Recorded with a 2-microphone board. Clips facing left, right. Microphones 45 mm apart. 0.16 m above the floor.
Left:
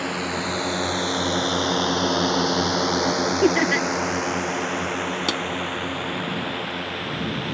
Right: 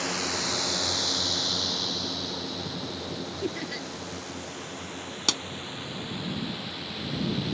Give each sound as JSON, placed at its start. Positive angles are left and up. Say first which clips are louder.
{"t": 0.0, "sound": "a drone", "louder": "left 5 dB", "side_deg": 15}
{"t": 3.4, "sound": "laughter", "louder": "left 15 dB", "side_deg": 65}
{"t": 5.3, "sound": "a pop", "louder": "left 1 dB", "side_deg": 10}